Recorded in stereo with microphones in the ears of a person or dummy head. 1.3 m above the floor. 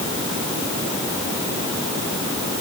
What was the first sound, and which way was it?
Only background noise.